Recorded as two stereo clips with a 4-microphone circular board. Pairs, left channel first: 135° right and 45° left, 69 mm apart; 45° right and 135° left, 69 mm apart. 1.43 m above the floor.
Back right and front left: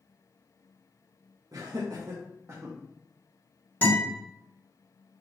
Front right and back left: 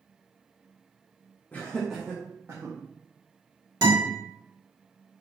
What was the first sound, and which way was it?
Laughter, 20° left.